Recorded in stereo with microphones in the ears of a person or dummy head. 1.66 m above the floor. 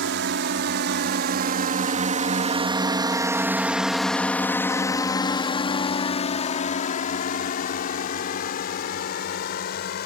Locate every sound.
0.0 s a drone: 60° right (ahead or behind); by 10.1 s 60° left (ahead or behind)